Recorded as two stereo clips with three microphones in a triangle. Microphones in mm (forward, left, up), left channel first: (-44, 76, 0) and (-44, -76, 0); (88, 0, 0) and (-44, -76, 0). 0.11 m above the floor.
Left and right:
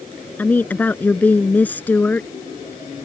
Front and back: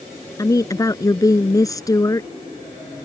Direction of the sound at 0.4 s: 30° left.